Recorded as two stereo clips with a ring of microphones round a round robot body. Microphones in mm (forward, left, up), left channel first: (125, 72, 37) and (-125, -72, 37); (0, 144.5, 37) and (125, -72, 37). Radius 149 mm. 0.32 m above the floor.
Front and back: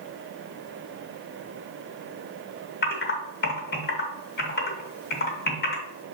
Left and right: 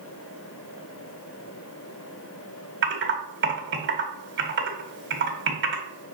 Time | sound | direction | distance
2.8 | typing on a keyboard | 25° right | 1.8 m